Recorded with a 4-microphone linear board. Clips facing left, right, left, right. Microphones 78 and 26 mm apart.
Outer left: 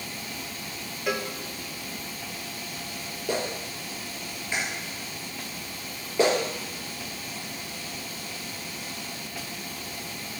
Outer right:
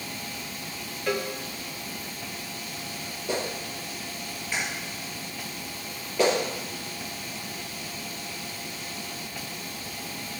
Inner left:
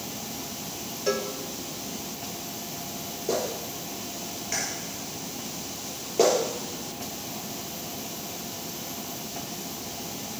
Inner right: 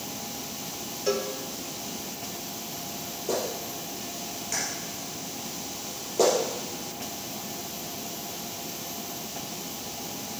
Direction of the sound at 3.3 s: 20° left (ahead or behind).